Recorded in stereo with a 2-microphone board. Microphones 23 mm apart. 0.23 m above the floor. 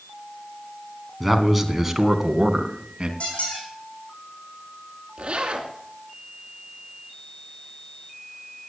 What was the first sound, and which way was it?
A man speaking, centre (ahead or behind).